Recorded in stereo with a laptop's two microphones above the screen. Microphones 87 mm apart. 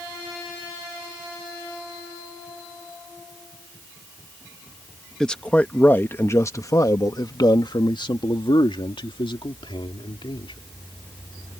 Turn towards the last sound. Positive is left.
turn(degrees=75)  # may be behind; listen again after turning